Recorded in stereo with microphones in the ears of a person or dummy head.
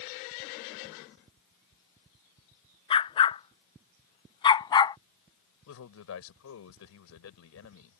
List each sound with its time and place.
2.9 s a dog barking: 30° left (ahead or behind); by 5.0 s 20° left (ahead or behind)
5.7 s a man speaking: 80° left